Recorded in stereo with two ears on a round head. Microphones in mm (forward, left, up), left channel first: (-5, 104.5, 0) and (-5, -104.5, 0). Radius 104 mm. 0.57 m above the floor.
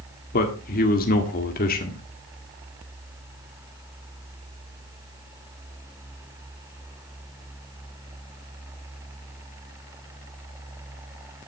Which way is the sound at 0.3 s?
40° left (ahead or behind).